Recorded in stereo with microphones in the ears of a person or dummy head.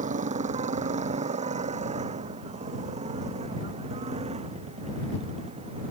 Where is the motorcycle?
35° right (ahead or behind); by 5.9 s 30° right (ahead or behind).